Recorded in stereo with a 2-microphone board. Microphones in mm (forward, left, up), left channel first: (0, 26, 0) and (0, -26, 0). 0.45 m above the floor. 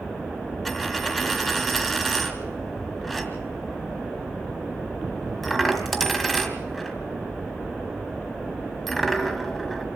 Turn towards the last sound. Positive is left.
turn(degrees=5)  # may be behind; listen again after turning